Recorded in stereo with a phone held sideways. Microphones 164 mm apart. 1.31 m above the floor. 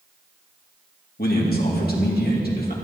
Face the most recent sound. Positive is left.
turn(degrees=70)  # may be behind; listen again after turning